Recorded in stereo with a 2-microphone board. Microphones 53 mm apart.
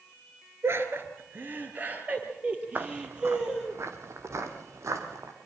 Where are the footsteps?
45° right (ahead or behind), 1.9 m; by 5.3 s 75° right (ahead or behind), 4.5 m.